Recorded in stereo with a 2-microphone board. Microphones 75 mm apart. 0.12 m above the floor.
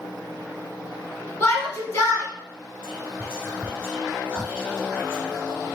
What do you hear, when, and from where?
1.4 s a shout: 25° left (ahead or behind), 1.2 m
2.8 s whispering: 15° right (ahead or behind), 1.6 m